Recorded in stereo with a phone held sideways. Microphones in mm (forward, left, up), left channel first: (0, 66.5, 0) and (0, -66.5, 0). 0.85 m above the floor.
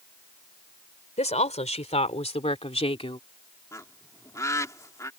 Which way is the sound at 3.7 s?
25° left (ahead or behind).